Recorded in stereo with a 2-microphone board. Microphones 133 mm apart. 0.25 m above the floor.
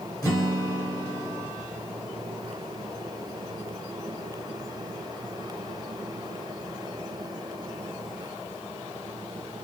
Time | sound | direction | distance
0.2 | a guitar | 25° left (ahead or behind) | 1.4 m